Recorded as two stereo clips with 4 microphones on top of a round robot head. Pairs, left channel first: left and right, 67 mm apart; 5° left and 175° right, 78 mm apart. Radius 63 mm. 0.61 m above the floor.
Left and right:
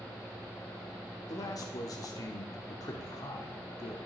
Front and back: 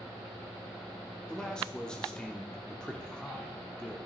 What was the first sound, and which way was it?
A man speaking, 85° left.